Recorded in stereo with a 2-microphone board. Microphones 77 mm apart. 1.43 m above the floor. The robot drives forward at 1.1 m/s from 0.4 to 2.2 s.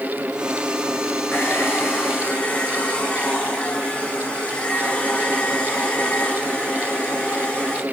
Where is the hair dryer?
25° left (ahead or behind), 4 m; by 7.8 s 20° left (ahead or behind), 5 m.